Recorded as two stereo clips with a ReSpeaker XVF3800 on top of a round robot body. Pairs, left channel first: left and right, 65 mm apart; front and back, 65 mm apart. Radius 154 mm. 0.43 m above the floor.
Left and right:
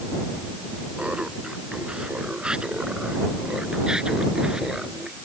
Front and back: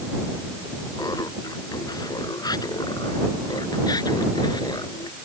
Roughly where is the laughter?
Ahead.